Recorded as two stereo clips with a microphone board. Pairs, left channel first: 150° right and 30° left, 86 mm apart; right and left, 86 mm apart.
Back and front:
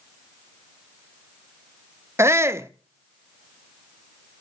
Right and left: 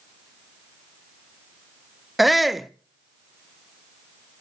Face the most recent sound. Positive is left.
turn(degrees=0)